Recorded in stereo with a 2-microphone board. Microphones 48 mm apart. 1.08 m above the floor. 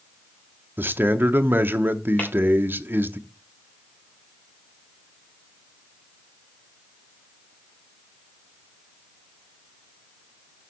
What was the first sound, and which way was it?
A man speaking, 45° right (ahead or behind).